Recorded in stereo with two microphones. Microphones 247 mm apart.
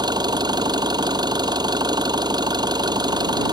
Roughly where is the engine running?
Centre.